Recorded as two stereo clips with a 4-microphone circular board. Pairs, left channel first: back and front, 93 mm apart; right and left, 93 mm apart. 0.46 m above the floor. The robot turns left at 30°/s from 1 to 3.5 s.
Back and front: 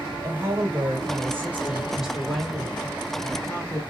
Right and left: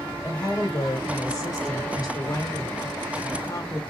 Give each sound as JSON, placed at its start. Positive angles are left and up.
{"t": 0.2, "sound": "a woman speaking", "azimuth_deg": -50, "distance_m": 1.4}